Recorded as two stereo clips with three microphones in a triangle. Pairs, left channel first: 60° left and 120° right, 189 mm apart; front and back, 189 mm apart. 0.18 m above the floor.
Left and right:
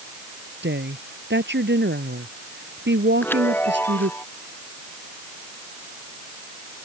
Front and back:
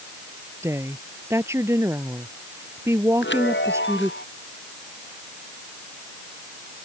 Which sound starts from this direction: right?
A woman speaking, at 0.6 s.